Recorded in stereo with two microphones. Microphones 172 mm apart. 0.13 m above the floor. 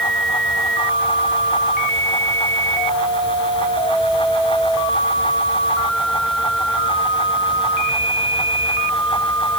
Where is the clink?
No clink in this recording.